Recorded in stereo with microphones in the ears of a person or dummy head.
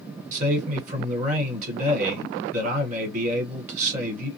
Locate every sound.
0.3 s a man speaking: 40° right (ahead or behind), 1.3 m